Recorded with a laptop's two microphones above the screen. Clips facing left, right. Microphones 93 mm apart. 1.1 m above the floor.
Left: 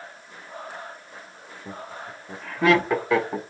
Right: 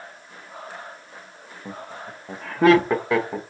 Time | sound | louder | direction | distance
1.6 | laughter | right 1 dB | 85° right | 1.1 m